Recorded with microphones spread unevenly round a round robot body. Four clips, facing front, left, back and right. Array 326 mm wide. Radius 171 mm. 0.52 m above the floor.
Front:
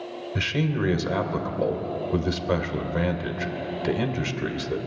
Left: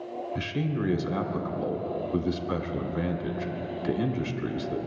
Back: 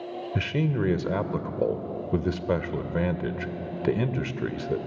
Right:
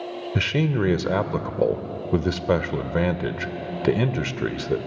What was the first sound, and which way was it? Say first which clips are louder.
A man speaking: right 8 dB, front 1 dB; 95° right.